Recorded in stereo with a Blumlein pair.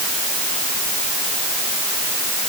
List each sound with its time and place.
Only background noise.